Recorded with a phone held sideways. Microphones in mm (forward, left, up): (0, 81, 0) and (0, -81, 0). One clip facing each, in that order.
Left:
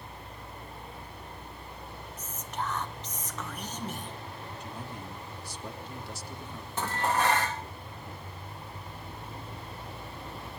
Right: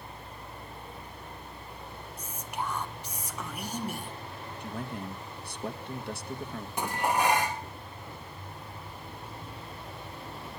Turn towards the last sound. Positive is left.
turn(degrees=-15)  # may be behind; listen again after turning